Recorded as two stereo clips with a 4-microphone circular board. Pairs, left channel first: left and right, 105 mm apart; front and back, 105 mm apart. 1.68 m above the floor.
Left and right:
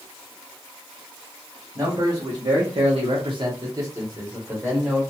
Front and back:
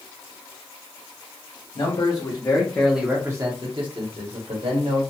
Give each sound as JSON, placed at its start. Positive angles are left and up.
{"t": 1.8, "sound": "a man speaking", "azimuth_deg": -35, "distance_m": 0.9}